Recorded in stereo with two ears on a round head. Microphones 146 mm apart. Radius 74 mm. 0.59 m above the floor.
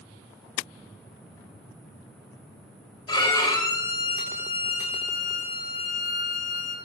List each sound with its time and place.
3.1 s a violin: 25° left (ahead or behind), 2.5 m